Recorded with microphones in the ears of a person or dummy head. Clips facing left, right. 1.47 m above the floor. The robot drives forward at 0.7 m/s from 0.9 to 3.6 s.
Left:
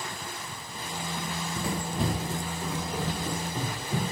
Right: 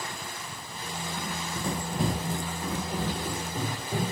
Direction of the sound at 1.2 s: 10° left (ahead or behind).